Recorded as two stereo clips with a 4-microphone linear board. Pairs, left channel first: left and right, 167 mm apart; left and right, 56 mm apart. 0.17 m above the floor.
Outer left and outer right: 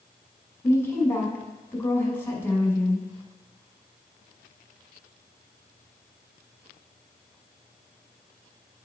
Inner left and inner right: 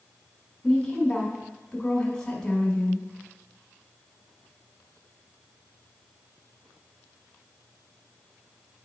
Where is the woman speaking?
15° left (ahead or behind), 1.4 m.